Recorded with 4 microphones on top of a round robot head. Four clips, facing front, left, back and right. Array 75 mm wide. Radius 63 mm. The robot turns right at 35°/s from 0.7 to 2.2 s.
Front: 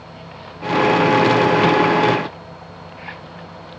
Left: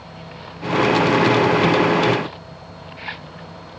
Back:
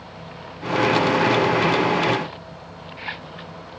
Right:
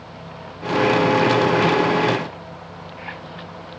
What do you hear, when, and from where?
Only background noise.